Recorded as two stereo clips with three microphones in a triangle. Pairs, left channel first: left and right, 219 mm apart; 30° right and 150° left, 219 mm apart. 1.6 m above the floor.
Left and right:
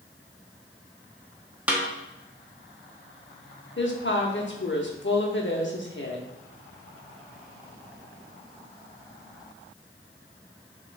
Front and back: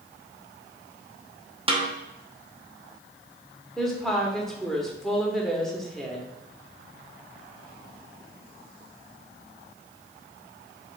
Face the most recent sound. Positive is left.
turn(degrees=60)